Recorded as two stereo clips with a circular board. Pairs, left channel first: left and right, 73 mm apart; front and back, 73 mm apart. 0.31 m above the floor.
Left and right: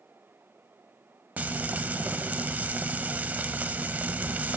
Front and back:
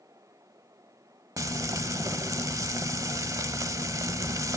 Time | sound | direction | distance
1.4 | frying | 155° right | 0.8 m